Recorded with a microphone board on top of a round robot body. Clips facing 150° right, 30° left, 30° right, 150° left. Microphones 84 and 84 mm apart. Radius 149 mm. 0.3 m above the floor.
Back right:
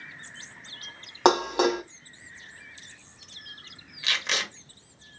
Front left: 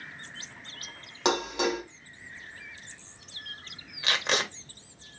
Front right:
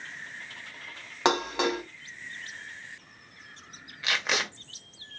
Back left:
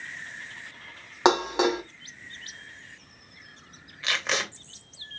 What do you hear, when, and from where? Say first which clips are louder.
1.2 s dishes clattering: back right 6 dB, back left 4 dB; 140° right, 1.3 m
4.0 s tape being pulled: front left 3 dB, even; 50° left, 1.7 m